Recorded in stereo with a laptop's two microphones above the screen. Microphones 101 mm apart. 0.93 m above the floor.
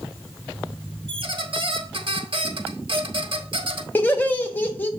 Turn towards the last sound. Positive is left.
turn(degrees=20)  # may be behind; listen again after turning